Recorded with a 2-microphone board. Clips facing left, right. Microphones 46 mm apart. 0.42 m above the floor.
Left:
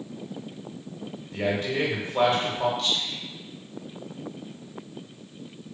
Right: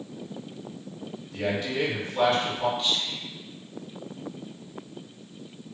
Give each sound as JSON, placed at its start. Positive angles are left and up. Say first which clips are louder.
{"t": 1.3, "sound": "a man speaking", "louder": "left 2 dB", "side_deg": 35, "distance_m": 0.8}
{"t": 2.8, "sound": "whispering", "louder": "even", "side_deg": -20, "distance_m": 0.8}